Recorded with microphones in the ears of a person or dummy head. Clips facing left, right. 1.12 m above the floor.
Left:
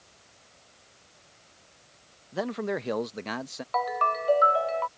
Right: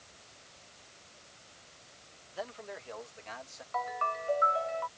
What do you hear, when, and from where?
2.3 s a man speaking: 65° left (ahead or behind); by 3.6 s 70° left (ahead or behind)
3.7 s a ringtone: 65° left (ahead or behind)